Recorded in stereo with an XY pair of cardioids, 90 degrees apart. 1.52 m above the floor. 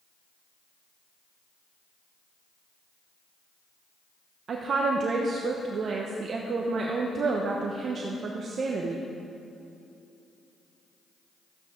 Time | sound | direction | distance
4.5 | a woman speaking | 55° right | 1.1 m